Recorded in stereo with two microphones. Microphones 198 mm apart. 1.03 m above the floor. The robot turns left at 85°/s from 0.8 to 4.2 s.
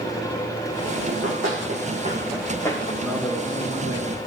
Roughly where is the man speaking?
Behind.